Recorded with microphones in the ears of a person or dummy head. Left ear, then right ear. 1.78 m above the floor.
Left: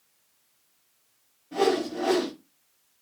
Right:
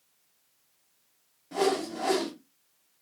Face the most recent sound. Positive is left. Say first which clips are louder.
# left 3 dB
turn(degrees=-55)  # may be behind; listen again after turning